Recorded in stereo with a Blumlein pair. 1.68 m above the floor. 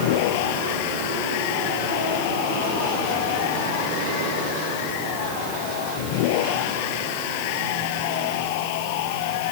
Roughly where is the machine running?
Ahead left.